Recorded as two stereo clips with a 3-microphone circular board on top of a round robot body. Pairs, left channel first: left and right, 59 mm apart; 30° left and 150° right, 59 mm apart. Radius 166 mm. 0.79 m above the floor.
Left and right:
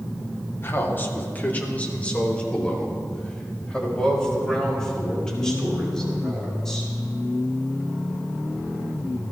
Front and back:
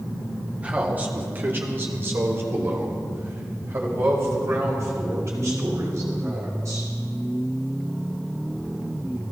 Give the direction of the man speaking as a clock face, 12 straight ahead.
7 o'clock.